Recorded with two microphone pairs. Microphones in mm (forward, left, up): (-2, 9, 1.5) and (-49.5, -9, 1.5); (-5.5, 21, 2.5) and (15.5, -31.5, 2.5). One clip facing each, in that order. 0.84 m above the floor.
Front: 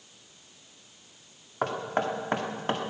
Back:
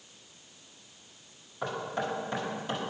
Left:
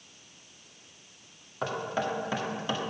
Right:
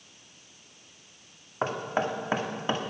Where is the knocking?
15° right, 1.7 m.